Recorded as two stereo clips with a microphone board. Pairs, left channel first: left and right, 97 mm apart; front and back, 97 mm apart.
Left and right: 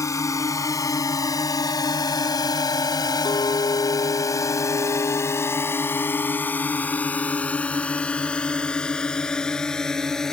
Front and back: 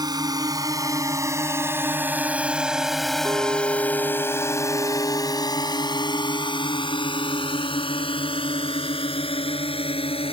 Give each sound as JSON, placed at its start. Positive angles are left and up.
{"t": 0.0, "sound": "a drone", "azimuth_deg": 140}
{"t": 3.2, "sound": "a clink", "azimuth_deg": 125}